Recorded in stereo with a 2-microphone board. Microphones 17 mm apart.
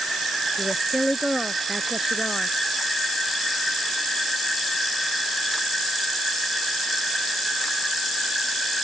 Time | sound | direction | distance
0.6 | a woman speaking | 20° right (ahead or behind) | ?